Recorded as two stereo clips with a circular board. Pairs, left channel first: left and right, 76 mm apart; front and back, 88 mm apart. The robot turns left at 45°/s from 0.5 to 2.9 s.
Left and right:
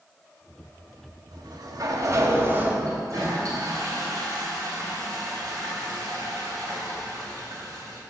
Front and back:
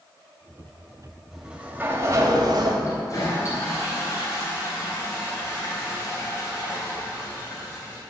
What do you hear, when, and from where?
1.3 s a sliding door: 95° right, 1.5 m; by 2.7 s 160° right, 1.5 m
2.8 s a toilet flushing: 50° right, 3.5 m